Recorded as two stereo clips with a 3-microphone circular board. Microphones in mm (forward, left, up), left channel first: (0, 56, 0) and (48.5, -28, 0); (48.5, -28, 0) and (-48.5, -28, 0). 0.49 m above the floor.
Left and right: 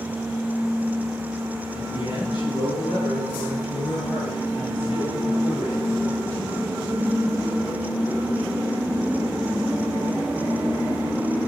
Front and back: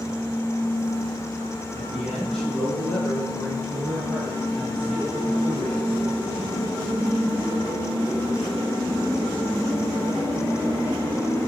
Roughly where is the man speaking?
Left.